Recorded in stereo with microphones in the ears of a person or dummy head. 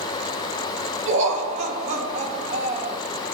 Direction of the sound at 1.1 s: 40° right (ahead or behind).